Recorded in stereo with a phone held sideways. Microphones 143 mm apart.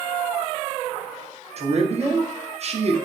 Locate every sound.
1.6 s a man speaking: 50° right (ahead or behind), 0.6 m